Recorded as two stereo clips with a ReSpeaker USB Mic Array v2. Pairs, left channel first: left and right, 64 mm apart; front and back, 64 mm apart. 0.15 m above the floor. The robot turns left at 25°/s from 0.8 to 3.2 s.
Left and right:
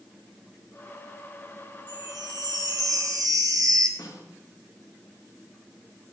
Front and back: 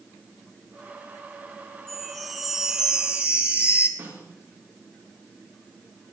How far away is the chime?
About 1.9 m.